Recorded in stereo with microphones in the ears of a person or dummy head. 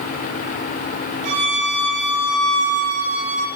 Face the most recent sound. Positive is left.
turn(degrees=-60)  # may be behind; listen again after turning